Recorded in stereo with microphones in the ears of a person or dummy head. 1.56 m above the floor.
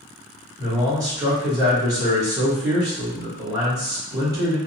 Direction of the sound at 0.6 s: 15° right (ahead or behind).